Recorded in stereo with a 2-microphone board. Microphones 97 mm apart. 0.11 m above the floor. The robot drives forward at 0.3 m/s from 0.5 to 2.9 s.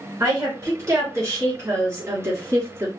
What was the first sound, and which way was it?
A woman speaking, 30° right (ahead or behind).